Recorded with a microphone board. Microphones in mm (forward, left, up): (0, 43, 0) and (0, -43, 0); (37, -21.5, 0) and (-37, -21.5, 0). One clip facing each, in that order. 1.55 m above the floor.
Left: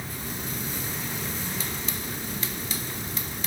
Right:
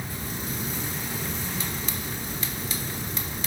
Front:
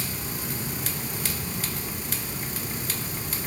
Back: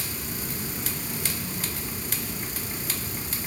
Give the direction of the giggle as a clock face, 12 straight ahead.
No giggle in this recording.